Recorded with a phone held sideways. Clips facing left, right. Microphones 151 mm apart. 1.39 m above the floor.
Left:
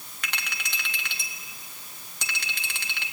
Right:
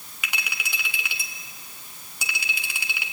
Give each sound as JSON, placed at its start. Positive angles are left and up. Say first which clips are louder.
{"t": 0.2, "sound": "a clink", "louder": "right 2 dB", "side_deg": -10, "distance_m": 1.9}